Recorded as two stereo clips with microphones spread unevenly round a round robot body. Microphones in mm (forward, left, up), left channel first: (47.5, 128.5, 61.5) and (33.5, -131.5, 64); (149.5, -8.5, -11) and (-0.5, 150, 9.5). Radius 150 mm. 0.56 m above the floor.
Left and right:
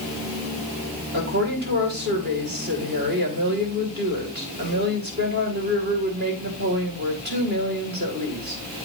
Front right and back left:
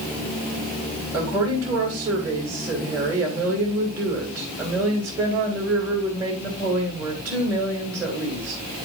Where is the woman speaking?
145° right, 2.5 m.